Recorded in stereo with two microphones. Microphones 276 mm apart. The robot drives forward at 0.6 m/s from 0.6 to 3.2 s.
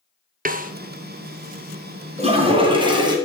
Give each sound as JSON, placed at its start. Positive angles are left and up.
{"t": 0.5, "sound": "a snare drum", "side_deg": -30, "distance_m": 0.6}
{"t": 2.2, "sound": "a toilet flushing", "side_deg": -25, "distance_m": 1.3}